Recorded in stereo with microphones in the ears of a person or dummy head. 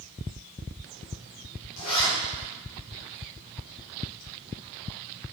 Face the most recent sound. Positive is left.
turn(degrees=85)